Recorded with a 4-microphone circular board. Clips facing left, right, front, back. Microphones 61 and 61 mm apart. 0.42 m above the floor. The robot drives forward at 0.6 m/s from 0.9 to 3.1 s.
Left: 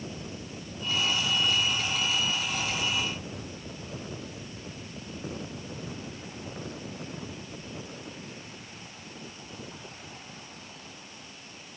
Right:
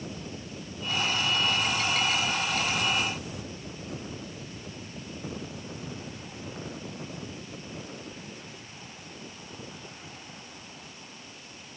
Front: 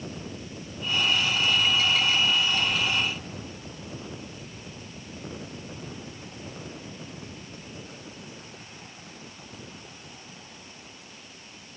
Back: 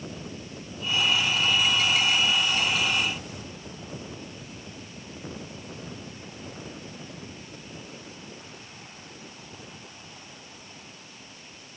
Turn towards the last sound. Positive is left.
No sound to turn to.